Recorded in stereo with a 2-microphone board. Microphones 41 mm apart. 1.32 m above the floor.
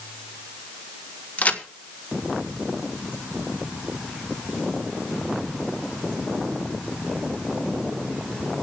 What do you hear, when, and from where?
1.4 s a crack: 40° left (ahead or behind), 1.3 m